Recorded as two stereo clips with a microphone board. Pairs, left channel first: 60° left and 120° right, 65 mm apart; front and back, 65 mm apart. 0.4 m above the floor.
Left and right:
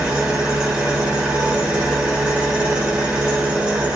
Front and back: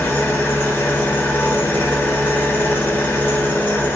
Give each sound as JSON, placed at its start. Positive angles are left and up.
{"t": 0.0, "sound": "an engine running", "azimuth_deg": -45, "distance_m": 0.7}